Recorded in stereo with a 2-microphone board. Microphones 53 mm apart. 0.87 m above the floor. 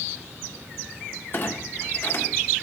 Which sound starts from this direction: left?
A clunk, at 1.3 s.